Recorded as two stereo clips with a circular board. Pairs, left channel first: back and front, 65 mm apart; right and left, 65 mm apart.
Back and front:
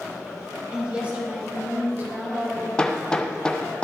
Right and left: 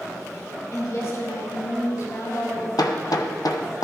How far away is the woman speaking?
About 3 m.